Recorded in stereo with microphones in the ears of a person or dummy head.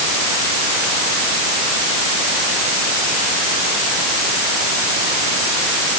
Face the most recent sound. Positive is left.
No sound to turn to.